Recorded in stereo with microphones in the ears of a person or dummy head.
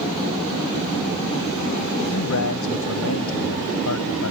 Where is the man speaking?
80° left.